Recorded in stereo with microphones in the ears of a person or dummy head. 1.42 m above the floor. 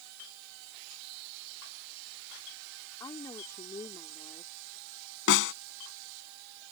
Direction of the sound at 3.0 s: 20° left (ahead or behind).